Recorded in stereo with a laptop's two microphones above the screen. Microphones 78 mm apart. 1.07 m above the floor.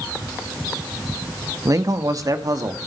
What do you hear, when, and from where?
1.6 s a man speaking: 45° right (ahead or behind), 1.1 m; by 2.8 s 50° right (ahead or behind), 1.8 m